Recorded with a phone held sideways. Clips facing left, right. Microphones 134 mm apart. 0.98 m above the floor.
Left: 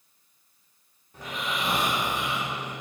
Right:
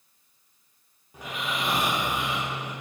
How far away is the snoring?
About 1.0 m.